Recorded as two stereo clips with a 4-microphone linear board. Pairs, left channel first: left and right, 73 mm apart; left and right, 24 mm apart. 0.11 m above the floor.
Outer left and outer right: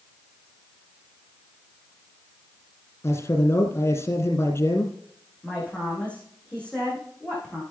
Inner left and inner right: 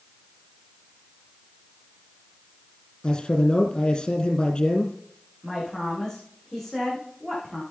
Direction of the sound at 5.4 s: 15° left (ahead or behind).